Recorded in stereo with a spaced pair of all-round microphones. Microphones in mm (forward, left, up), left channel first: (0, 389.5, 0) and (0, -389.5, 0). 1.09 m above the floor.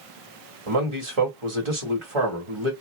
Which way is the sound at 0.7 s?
40° right (ahead or behind).